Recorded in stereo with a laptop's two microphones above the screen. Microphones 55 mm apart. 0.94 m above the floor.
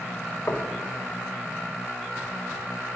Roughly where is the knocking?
Left.